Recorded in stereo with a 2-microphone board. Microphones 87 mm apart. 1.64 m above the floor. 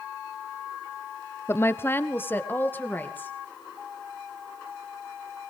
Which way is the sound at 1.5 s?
30° left (ahead or behind).